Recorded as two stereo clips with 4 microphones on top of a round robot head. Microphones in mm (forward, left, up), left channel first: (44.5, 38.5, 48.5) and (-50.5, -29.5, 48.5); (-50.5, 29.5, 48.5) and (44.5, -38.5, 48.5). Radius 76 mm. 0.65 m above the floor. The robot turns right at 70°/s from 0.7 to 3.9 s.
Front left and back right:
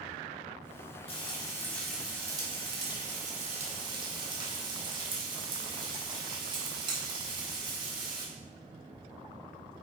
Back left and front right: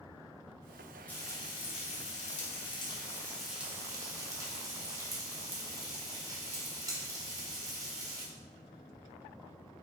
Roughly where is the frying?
Ahead left.